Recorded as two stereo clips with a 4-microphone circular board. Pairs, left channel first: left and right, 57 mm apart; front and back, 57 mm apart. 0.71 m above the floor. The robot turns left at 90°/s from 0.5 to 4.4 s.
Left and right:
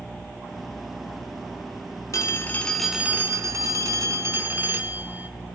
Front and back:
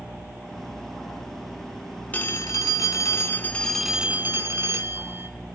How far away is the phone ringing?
About 0.8 m.